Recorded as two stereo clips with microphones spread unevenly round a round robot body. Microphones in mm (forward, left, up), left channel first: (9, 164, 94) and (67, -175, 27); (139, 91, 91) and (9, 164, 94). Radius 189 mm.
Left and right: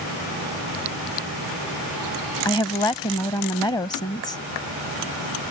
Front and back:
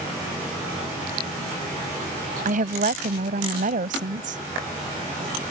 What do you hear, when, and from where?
2.5 s a woman speaking: 175° right